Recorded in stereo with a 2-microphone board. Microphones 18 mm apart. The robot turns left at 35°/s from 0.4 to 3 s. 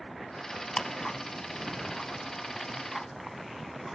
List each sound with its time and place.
0.8 s ticking: 35° left (ahead or behind), 0.9 m; by 4.0 s centre (ahead or behind), 0.9 m